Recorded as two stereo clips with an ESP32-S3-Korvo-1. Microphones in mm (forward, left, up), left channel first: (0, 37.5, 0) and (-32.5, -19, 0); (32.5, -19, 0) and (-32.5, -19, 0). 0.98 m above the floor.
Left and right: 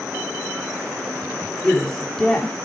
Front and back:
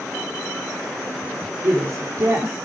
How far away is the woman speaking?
About 3.5 m.